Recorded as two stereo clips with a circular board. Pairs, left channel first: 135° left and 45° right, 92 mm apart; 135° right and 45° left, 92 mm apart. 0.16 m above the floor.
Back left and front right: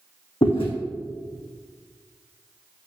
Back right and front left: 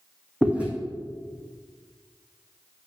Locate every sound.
0.4 s chewing: 120° left, 1.9 m